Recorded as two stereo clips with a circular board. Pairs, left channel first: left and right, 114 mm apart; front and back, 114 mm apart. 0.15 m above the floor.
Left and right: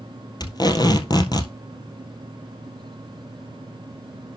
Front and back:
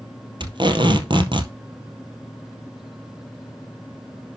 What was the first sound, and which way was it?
Tape being pulled, 140° left.